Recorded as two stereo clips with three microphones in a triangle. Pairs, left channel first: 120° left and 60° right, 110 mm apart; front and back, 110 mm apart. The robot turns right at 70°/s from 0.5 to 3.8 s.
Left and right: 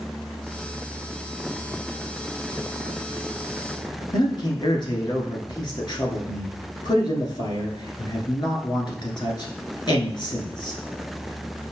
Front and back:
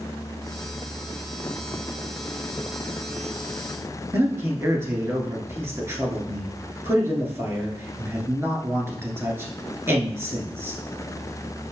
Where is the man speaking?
125° left, 1.4 m.